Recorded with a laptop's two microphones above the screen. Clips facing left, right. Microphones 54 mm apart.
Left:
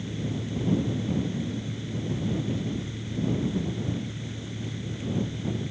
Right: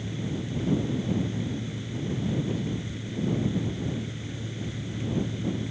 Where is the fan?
5° right (ahead or behind).